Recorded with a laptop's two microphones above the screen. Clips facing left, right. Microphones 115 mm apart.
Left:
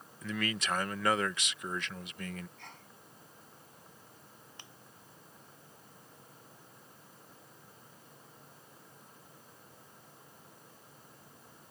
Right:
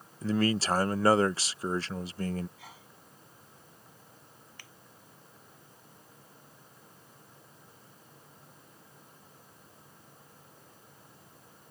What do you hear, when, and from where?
0.2 s a man speaking: 35° right (ahead or behind)
2.6 s a sneeze: 5° right (ahead or behind)
4.6 s a finger snap: 20° left (ahead or behind)